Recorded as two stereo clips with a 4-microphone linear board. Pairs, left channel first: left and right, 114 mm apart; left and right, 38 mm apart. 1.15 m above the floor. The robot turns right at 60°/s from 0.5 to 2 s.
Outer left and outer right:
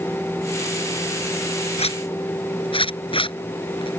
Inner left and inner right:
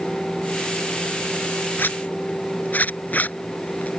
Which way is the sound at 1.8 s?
60° left (ahead or behind).